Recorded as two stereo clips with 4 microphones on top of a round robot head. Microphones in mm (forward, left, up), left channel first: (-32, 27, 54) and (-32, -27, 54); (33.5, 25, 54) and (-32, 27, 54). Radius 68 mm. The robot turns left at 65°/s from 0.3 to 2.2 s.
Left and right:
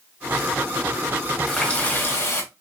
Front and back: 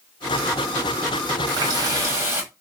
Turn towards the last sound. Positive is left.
turn(degrees=130)